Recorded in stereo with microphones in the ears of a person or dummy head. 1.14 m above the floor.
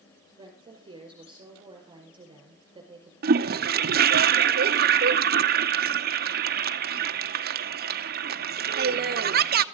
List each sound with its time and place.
0.4 s a woman speaking: 25° right (ahead or behind), 5 m
3.2 s a toilet flushing: 50° right (ahead or behind), 0.7 m